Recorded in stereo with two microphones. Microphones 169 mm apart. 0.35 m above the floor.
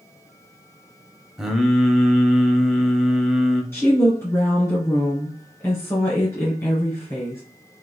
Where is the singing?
5° right (ahead or behind), 0.6 m.